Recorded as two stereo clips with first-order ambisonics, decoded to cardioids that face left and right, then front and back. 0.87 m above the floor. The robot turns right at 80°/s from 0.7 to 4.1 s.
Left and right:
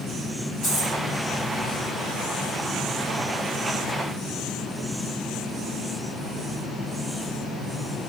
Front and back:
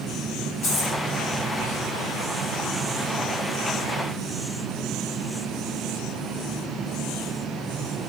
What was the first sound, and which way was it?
A dropped coin, 25° left.